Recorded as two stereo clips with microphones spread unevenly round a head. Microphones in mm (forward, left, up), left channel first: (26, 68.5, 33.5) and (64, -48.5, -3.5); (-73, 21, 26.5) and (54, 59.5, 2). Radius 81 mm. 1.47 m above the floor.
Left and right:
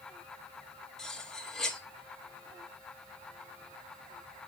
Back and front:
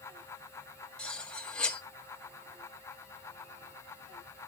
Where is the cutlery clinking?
145° left, 0.8 m.